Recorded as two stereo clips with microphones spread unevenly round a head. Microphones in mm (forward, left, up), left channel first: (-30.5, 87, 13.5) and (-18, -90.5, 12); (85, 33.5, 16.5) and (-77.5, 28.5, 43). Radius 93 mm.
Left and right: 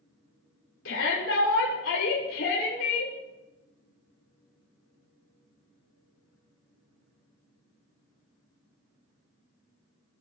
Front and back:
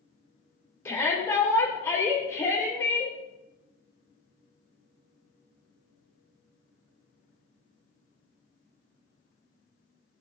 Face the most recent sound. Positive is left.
turn(degrees=75)